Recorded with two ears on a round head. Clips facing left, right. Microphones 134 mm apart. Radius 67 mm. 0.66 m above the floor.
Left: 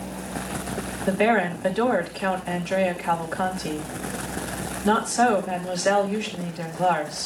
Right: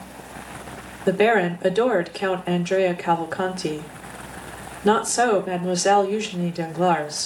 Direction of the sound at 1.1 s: 55° right (ahead or behind).